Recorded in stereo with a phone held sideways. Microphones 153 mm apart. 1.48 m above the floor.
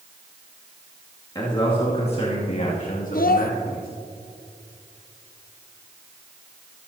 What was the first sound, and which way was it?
A man speaking, 30° left (ahead or behind).